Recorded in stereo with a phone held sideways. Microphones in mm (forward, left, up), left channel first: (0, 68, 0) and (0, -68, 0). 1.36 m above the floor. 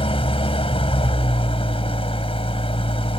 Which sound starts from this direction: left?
An engine running, at 0.0 s.